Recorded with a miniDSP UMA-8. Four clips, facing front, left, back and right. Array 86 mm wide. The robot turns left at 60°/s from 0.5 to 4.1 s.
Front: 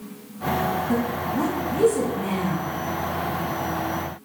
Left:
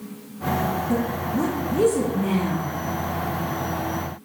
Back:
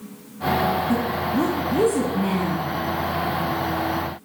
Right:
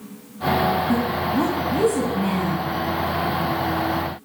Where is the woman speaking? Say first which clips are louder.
Right 3 dB, back 2 dB; 50° right, 1.0 m; by 2.7 s 155° right, 1.0 m.